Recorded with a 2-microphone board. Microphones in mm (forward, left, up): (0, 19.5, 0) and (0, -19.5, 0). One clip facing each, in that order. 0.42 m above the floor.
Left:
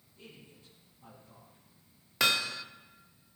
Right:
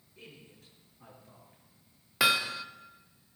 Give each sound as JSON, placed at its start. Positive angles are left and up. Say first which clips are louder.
{"t": 0.2, "sound": "a man speaking", "louder": "right 1 dB", "side_deg": -75, "distance_m": 6.5}
{"t": 2.2, "sound": "hammering", "louder": "right 2 dB", "side_deg": -10, "distance_m": 0.6}